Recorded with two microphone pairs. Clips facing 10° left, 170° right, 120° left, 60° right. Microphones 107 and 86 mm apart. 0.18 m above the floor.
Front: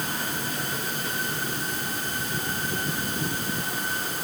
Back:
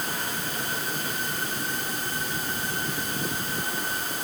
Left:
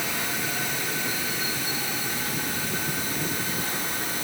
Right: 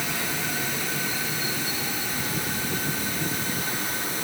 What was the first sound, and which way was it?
Only background noise.